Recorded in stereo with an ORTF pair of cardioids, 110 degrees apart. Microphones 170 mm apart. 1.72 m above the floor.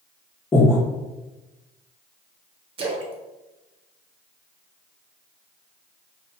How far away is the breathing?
About 0.8 m.